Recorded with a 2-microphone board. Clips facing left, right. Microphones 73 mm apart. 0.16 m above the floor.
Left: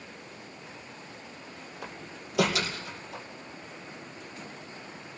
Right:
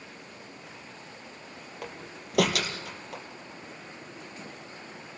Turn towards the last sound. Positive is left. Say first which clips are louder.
# right 2 dB
turn(degrees=-65)  # may be behind; listen again after turning